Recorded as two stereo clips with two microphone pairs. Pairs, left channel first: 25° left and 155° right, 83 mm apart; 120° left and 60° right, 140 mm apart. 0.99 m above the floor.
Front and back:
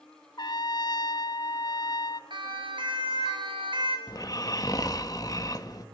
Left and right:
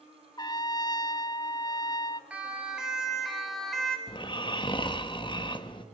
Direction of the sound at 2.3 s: 140° right.